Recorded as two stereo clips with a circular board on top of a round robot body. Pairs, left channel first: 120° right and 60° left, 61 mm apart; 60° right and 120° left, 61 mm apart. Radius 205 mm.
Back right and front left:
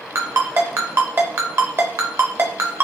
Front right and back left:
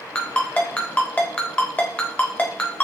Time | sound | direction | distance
0.1 | a ringtone | 10° left | 0.7 m